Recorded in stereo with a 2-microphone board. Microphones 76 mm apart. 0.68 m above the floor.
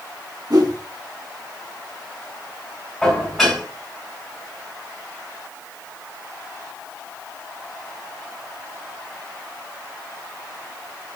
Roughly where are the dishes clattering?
Centre.